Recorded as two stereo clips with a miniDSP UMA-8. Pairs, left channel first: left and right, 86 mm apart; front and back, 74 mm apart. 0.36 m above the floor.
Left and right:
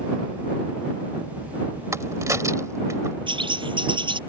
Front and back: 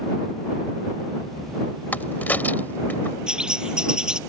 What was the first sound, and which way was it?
A crack, 55° right.